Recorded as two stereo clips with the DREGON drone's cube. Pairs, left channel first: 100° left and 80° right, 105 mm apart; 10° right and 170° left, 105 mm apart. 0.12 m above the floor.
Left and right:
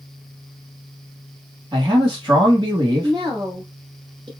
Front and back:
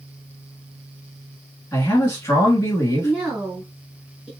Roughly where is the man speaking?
Right.